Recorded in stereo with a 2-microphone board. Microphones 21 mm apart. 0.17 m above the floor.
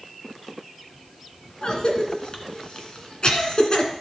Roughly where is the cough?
Left.